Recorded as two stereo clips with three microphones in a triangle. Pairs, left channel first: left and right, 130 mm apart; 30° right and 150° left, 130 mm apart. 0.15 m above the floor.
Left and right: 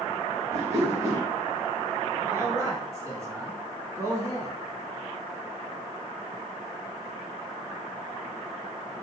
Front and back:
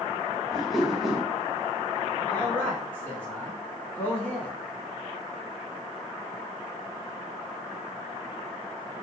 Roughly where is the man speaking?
Right.